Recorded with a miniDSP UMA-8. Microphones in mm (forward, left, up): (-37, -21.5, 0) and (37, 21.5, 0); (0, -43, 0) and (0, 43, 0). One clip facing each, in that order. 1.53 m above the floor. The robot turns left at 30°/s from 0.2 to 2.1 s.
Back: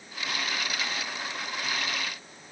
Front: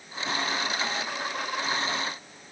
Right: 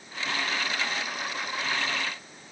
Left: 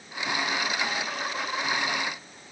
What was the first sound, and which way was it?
Only background noise.